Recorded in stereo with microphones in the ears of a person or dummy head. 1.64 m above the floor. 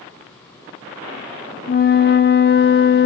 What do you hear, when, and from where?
1.7 s a flute: 50° left (ahead or behind), 0.6 m